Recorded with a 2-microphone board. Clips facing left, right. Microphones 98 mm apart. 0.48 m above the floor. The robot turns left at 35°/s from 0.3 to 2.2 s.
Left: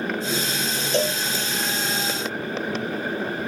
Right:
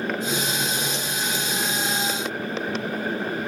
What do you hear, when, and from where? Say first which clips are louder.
0.9 s a cowbell: left 8 dB; 65° left (ahead or behind); by 1.2 s 75° left (ahead or behind)